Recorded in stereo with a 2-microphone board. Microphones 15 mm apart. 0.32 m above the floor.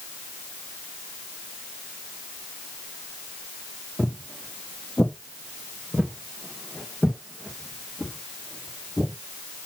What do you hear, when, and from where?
4.0 s footsteps: 55° left (ahead or behind), 1.1 m; by 9.1 s 40° left (ahead or behind), 2.5 m